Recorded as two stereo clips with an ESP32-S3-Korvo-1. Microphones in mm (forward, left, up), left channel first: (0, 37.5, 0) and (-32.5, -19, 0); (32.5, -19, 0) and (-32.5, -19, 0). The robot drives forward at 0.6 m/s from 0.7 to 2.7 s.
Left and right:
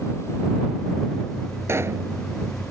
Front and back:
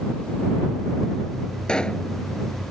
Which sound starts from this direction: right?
A pop, at 1.7 s.